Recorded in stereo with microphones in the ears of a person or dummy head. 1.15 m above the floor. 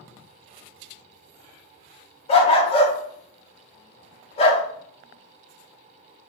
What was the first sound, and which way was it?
A dog barking, 40° left (ahead or behind).